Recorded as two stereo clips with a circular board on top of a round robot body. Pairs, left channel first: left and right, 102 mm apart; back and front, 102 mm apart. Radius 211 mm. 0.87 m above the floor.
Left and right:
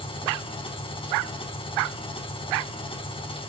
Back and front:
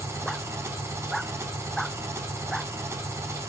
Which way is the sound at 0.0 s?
65° left.